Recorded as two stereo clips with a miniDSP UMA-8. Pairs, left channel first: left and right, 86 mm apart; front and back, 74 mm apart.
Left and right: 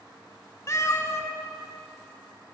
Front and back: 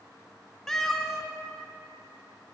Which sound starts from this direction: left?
A cat meowing, at 0.7 s.